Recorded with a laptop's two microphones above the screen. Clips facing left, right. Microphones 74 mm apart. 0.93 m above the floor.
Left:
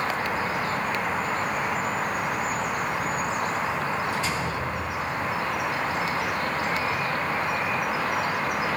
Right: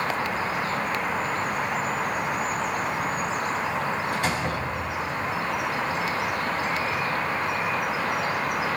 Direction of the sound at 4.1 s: 65° right (ahead or behind).